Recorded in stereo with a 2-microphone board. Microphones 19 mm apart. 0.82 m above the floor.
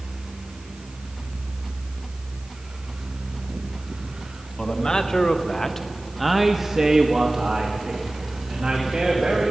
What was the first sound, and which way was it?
A man speaking, 40° left (ahead or behind).